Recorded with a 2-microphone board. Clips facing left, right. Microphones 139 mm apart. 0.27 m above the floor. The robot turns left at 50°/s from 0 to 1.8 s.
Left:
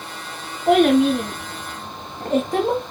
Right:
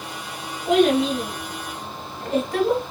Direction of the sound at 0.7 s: 60° left (ahead or behind).